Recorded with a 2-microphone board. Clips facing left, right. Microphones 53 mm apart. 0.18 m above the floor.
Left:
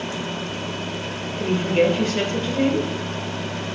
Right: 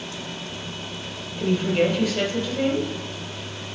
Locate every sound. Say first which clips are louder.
1.4 s a woman speaking: left 2 dB; 35° left (ahead or behind), 3 m